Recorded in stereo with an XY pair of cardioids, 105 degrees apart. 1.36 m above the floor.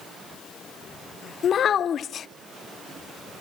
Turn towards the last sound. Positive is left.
turn(degrees=55)